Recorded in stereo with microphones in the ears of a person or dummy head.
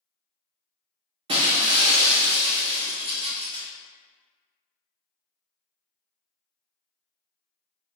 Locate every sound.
1.3 s breaking glass: 35° right (ahead or behind), 0.5 m